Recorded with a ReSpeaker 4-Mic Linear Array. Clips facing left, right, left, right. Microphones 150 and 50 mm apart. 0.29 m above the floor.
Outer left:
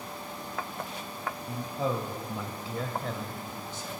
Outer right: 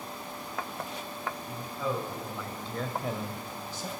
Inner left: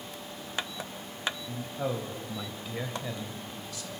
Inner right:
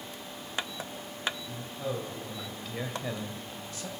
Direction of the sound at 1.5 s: 45° left (ahead or behind).